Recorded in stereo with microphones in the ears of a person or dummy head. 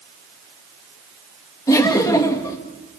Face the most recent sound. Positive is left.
turn(degrees=20)  # may be behind; listen again after turning